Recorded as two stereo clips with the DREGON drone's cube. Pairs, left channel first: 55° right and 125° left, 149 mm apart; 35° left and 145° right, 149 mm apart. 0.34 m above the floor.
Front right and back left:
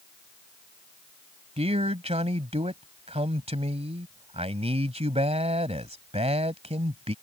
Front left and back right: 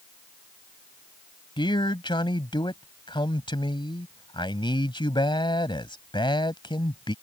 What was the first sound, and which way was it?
A man speaking, 85° left.